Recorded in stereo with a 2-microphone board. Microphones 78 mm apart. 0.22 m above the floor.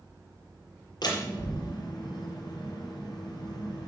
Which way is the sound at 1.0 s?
60° left (ahead or behind).